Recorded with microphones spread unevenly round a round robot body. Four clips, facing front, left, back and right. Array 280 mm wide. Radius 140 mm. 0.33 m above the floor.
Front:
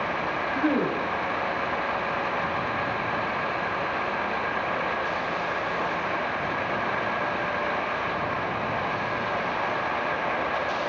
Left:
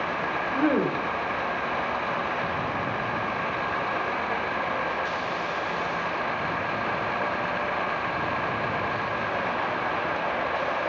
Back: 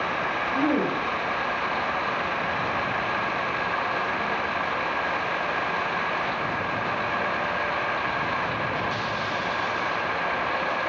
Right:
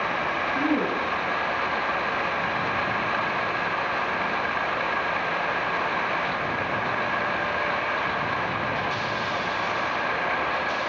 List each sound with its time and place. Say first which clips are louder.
0.5 s a woman speaking: left 2 dB, back 1 dB; 105° left, 1.7 m